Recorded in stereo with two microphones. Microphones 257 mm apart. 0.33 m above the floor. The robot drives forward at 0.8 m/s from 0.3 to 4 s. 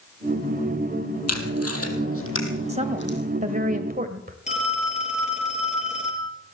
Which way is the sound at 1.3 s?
70° left (ahead or behind).